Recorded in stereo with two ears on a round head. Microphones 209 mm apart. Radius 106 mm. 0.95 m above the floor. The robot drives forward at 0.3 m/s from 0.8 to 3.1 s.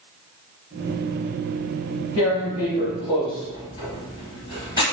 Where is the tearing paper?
15° left (ahead or behind), 1.0 m; by 4.8 s 20° left (ahead or behind), 0.9 m.